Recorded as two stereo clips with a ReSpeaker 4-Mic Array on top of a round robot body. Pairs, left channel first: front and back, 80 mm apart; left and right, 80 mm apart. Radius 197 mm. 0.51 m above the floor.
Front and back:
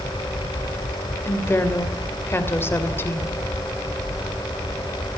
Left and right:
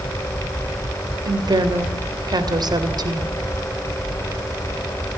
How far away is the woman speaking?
About 3 m.